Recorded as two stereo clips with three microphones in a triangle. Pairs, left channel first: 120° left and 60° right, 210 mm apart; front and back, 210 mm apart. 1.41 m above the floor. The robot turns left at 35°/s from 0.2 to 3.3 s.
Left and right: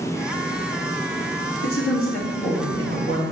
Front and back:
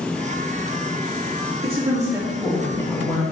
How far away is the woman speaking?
About 2.5 m.